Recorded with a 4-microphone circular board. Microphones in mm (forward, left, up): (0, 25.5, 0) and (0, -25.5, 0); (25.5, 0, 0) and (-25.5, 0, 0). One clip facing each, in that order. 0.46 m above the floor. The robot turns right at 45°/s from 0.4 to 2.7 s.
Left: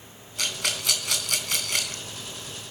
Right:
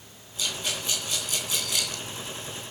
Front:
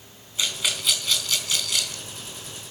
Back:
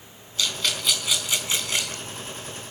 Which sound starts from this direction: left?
A rattle, at 0.4 s.